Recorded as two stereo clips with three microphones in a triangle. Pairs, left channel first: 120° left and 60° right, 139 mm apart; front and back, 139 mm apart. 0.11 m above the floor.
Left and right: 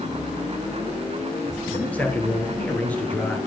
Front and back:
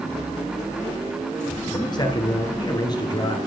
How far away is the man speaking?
About 1.6 m.